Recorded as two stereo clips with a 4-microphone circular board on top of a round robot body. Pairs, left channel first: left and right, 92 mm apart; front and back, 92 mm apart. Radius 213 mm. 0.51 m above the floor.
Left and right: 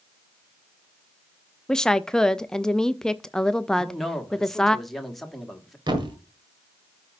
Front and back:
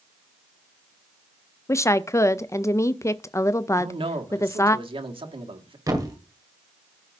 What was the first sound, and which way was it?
A woman speaking, 15° left.